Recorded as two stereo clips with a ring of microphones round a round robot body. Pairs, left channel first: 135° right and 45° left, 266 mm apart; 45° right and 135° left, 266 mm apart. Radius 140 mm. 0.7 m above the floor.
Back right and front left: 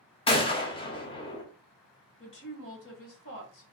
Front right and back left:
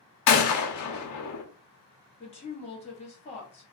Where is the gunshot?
65° right, 0.7 m.